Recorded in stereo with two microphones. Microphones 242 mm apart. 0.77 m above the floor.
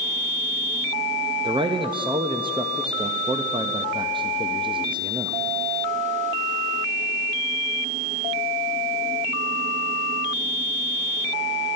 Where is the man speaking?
20° right (ahead or behind), 0.7 m.